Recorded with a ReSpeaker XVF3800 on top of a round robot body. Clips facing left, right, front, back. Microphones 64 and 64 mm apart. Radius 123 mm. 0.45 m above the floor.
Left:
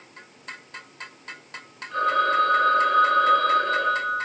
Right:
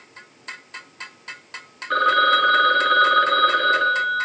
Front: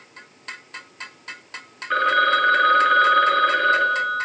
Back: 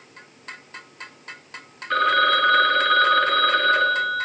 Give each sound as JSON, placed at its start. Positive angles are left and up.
{"t": 1.9, "sound": "a phone ringing", "azimuth_deg": -80, "distance_m": 6.5}